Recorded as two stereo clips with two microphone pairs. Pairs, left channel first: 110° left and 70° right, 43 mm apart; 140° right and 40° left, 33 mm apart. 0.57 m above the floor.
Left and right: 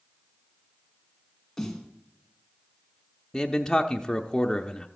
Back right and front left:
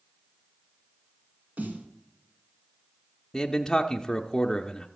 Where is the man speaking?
170° left, 0.6 m.